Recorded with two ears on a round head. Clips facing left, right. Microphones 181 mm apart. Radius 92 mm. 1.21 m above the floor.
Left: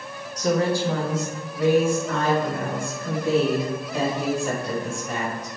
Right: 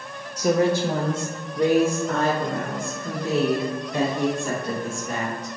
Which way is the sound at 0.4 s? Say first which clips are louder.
Right 2 dB; 10° right (ahead or behind).